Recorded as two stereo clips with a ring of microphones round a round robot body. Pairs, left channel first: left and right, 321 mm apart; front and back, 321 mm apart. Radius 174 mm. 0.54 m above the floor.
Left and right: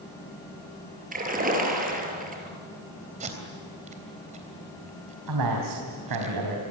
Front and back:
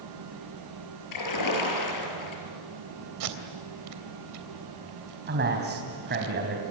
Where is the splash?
25° right, 6 m.